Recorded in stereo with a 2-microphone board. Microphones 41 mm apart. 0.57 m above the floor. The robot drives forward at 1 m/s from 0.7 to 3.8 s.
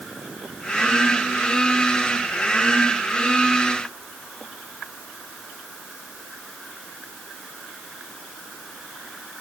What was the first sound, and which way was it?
Only background noise.